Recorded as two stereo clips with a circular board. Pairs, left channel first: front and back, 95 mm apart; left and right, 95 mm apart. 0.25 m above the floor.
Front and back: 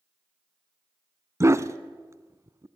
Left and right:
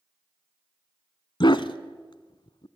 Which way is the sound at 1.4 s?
120° left.